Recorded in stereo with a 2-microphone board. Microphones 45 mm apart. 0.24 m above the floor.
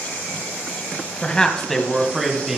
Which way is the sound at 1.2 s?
20° left (ahead or behind).